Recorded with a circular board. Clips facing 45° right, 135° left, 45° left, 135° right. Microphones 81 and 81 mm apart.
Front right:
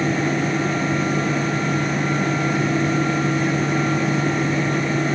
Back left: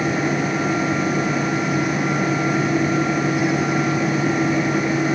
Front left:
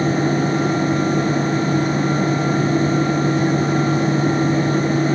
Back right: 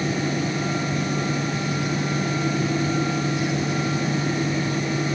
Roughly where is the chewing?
I don't hear chewing.